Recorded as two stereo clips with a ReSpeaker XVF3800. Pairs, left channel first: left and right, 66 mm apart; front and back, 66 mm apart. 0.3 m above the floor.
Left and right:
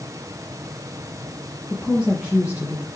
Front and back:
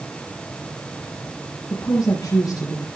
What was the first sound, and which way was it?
A woman speaking, 15° right.